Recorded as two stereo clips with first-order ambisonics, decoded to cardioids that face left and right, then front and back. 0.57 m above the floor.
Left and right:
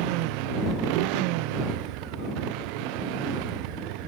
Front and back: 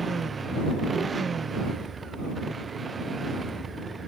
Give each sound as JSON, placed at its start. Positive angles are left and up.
{"t": 0.0, "sound": "a motorcycle", "azimuth_deg": -105}